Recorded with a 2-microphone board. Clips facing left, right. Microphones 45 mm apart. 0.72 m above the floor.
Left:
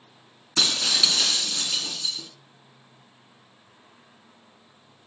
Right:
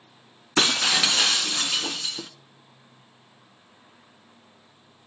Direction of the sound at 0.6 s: 40° right (ahead or behind).